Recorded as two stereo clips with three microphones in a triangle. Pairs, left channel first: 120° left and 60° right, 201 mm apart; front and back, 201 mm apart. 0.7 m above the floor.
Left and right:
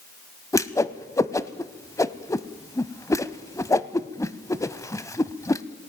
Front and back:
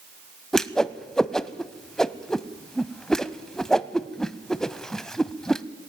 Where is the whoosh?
85° left, 0.5 m.